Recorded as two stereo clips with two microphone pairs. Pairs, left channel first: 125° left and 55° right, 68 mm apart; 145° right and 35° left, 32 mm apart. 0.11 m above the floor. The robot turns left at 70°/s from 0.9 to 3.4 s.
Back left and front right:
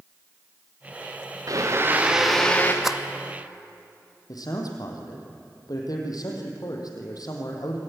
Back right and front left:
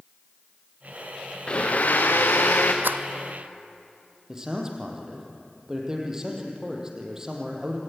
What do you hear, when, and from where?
1.5 s a blender: 90° right, 2.5 m; by 2.7 s 175° right, 2.5 m
2.8 s a rattle: 30° left, 0.9 m; by 3.0 s 20° left, 0.9 m
4.3 s a man speaking: 105° left, 3.5 m